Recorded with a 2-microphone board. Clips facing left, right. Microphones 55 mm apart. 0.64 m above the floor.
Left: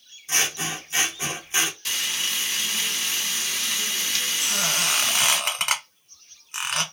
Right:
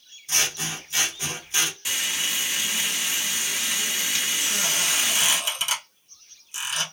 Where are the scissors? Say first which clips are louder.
Left 2 dB; 25° left (ahead or behind), 0.8 m.